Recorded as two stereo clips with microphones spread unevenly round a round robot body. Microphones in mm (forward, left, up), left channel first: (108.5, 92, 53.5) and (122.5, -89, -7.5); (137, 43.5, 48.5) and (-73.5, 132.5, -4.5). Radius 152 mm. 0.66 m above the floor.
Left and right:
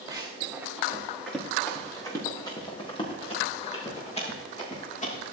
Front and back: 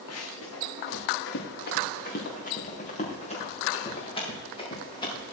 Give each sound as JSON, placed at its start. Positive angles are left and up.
{"t": 0.1, "sound": "running footsteps", "azimuth_deg": -10, "distance_m": 3.5}